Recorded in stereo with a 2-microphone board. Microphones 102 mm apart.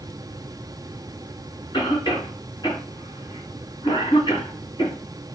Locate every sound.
1.7 s a cough: 50° left (ahead or behind), 2.5 m